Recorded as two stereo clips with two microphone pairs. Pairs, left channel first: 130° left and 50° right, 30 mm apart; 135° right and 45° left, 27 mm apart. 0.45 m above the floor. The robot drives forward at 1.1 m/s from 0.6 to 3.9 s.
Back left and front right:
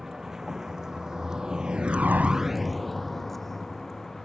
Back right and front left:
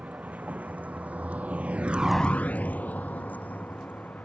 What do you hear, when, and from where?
0.0 s a vehicle: 25° left; by 4.3 s 145° right